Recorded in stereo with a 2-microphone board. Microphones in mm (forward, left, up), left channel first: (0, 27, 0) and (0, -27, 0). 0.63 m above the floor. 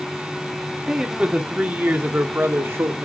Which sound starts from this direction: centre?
A man speaking, at 0.9 s.